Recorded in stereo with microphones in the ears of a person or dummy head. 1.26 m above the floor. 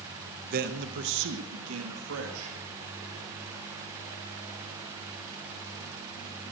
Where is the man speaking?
45° right (ahead or behind), 0.8 m; by 2.6 s 85° right, 2.0 m.